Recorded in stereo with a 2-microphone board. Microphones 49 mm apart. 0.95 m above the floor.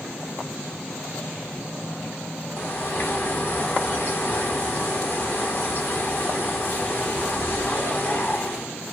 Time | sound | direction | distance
2.6 | a bird | 50° left (ahead or behind) | 0.8 m